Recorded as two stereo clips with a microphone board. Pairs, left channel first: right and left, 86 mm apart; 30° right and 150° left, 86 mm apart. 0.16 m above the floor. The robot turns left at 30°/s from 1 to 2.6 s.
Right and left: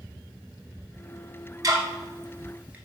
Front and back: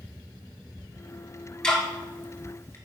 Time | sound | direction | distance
1.6 | ticking | 50° left | 0.8 m